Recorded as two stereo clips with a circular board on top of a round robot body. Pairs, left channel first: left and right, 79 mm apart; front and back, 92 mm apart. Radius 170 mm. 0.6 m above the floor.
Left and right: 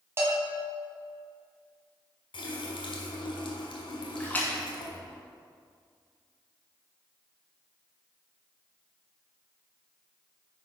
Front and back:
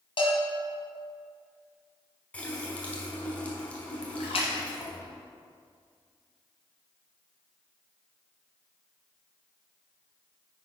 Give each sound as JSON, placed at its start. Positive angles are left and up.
{"t": 0.2, "sound": "a bell", "azimuth_deg": -30, "distance_m": 1.9}
{"t": 2.3, "sound": "a running tap", "azimuth_deg": 80, "distance_m": 1.4}
{"t": 4.2, "sound": "a splash", "azimuth_deg": 20, "distance_m": 1.3}